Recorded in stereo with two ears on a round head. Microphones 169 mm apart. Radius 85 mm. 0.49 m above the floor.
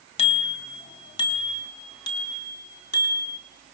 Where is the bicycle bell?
30° left (ahead or behind), 2 m; by 3.4 s 20° left (ahead or behind), 5 m.